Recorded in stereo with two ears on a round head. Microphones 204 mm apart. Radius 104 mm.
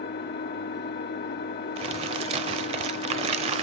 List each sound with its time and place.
0.0 s an engine running: 45° left (ahead or behind), 1.2 m
1.8 s crumpling: 25° right (ahead or behind), 0.6 m